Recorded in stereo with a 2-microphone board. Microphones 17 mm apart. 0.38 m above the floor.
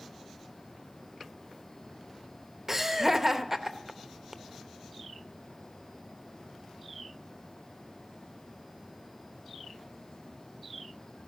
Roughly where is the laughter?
Centre.